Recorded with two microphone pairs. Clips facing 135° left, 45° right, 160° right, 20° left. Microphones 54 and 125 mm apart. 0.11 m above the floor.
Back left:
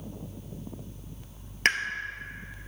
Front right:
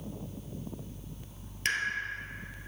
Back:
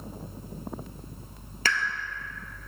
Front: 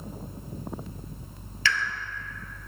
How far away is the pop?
About 0.5 m.